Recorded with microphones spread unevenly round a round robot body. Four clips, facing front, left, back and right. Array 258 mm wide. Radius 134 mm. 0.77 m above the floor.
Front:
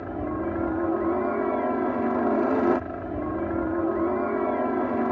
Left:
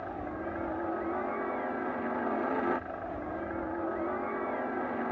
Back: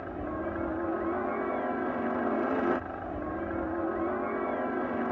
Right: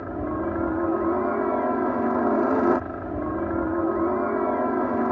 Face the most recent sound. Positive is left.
turn(degrees=-55)